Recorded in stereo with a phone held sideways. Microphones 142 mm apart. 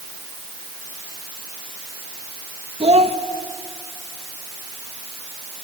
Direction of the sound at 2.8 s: 45° right (ahead or behind).